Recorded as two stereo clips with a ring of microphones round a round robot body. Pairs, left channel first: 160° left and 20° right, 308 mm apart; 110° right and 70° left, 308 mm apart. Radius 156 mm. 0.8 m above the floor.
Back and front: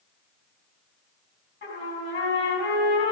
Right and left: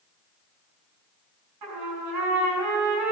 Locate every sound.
1.6 s a trumpet: 100° left, 4.5 m